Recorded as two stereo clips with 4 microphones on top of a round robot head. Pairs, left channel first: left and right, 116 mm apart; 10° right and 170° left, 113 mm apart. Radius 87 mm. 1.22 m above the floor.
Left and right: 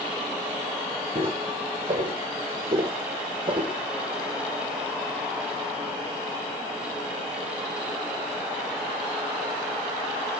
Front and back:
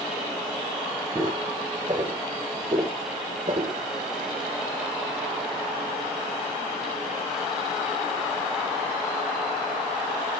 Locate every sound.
1.1 s footsteps: 125° right, 3 m; by 3.8 s 130° right, 1.7 m